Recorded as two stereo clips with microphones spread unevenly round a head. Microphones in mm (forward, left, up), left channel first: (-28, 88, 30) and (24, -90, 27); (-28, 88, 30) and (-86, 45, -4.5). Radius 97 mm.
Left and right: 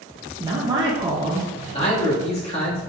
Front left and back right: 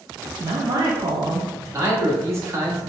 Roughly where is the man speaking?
Behind.